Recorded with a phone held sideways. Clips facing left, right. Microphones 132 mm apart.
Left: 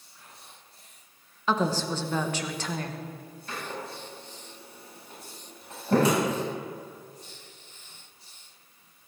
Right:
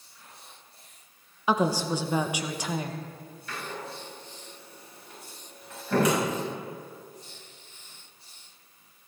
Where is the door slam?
30° left (ahead or behind), 5.5 m.